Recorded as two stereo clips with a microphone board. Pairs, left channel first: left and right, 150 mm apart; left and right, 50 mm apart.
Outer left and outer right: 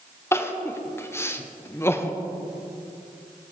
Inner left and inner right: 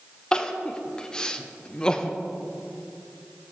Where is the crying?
15° left (ahead or behind), 0.8 m.